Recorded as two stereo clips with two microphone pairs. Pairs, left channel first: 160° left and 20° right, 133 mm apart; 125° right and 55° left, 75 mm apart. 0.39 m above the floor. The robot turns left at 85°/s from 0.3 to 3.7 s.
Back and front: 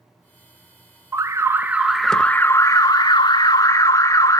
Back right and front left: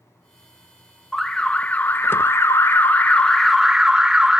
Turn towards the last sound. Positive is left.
turn(degrees=120)